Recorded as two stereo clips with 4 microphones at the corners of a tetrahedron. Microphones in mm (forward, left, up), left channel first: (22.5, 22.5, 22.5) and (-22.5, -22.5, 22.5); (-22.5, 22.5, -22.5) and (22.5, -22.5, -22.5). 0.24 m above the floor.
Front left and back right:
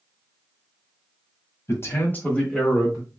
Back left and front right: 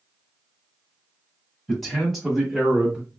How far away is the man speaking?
About 1.4 m.